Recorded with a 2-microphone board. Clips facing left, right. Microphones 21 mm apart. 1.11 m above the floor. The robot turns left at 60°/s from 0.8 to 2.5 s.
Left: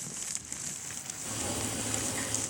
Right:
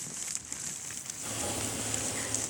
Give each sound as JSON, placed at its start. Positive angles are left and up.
{"t": 1.2, "sound": "boiling", "azimuth_deg": -100, "distance_m": 3.0}